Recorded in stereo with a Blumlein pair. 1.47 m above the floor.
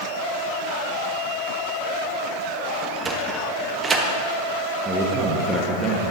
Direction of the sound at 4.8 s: 10° right.